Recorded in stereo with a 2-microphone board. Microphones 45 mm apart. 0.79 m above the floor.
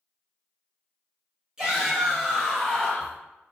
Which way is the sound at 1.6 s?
20° right (ahead or behind).